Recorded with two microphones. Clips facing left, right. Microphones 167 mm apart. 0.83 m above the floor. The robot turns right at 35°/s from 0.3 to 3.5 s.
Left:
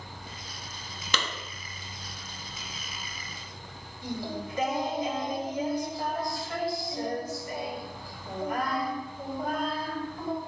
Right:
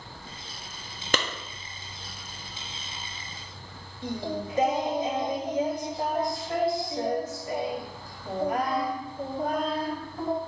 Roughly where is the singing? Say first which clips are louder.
Right 3 dB; right.